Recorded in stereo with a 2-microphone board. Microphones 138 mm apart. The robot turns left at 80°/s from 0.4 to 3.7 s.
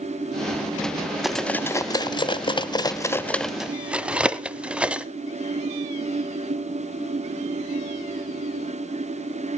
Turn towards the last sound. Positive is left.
turn(degrees=-10)  # may be behind; listen again after turning